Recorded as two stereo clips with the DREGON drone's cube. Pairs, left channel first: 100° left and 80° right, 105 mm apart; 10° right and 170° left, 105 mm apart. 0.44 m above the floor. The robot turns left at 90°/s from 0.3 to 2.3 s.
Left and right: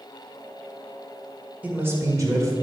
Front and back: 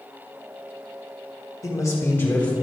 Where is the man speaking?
15° right, 1.6 m; by 2.5 s 75° right, 1.6 m.